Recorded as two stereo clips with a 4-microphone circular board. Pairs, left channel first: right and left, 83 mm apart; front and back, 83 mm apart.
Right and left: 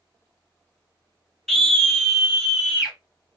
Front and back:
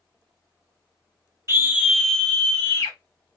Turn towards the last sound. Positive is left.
turn(degrees=5)